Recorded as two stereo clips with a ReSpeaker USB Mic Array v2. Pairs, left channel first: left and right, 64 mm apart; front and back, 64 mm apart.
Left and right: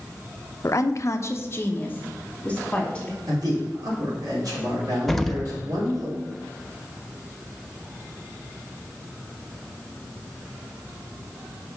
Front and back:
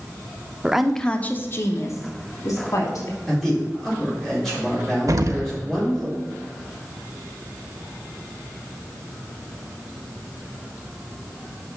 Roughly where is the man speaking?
Right.